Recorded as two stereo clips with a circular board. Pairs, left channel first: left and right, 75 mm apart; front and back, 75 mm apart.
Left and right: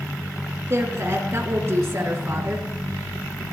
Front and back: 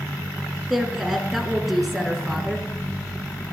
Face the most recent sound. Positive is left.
turn(degrees=-95)